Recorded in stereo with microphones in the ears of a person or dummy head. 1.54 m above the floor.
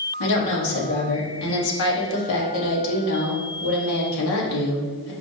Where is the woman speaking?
65° left (ahead or behind), 1.2 m.